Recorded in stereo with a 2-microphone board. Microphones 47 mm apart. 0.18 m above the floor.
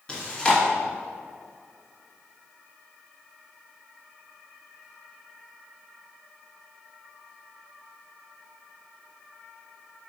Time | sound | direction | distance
0.1 | chewing | 20° left (ahead or behind) | 1.8 m